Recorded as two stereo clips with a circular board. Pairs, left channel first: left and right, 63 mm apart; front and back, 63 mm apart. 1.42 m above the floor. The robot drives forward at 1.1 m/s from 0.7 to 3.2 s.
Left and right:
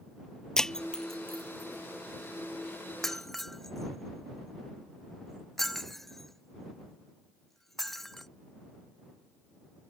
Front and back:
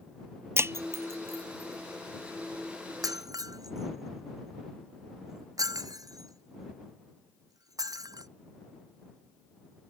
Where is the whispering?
I don't hear whispering.